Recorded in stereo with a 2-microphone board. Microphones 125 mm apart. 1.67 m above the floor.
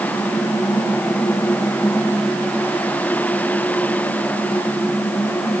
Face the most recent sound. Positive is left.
No sound to turn to.